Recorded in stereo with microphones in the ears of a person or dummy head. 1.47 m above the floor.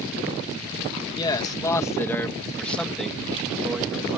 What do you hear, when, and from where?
1.2 s a man speaking: 25° left (ahead or behind); by 4.2 s 10° right (ahead or behind)